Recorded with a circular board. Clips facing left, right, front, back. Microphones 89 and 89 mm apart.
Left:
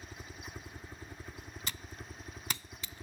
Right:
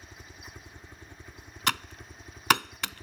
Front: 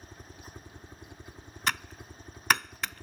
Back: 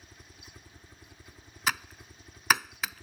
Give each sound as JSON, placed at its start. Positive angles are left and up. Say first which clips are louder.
{"t": 0.0, "sound": "a helicopter", "louder": "left 1 dB, front 6 dB", "azimuth_deg": 20}
{"t": 1.7, "sound": "typing on a keyboard", "louder": "right 18 dB, even", "azimuth_deg": -95}